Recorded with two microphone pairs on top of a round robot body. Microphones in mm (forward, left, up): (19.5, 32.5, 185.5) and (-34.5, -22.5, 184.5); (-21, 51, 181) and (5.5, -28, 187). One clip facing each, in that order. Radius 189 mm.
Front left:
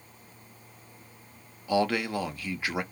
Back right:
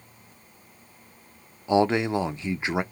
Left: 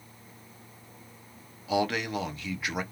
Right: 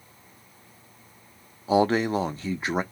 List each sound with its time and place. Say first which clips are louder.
1.7 s a man speaking: back right 5 dB, right 7 dB; 95° right, 0.7 m